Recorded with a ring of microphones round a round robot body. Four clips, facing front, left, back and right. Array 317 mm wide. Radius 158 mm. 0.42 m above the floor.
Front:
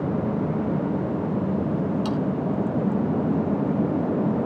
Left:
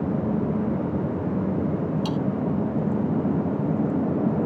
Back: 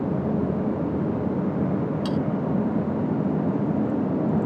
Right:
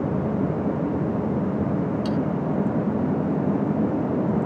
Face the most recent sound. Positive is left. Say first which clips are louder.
# right 2 dB, even
turn(degrees=115)